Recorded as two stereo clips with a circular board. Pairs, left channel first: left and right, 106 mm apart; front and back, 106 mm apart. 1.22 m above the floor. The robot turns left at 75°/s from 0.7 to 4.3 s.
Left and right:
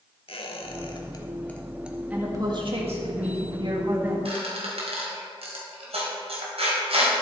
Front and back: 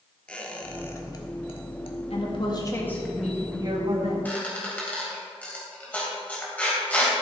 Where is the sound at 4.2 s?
70° right, 3.5 m; by 7.2 s 75° right, 3.5 m.